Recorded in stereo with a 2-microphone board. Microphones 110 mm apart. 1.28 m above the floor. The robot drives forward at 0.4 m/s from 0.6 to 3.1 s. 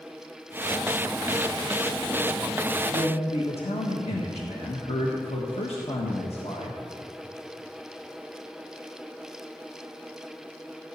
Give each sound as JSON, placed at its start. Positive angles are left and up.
{"t": 2.9, "sound": "a man speaking", "side_deg": 80, "distance_m": 1.4}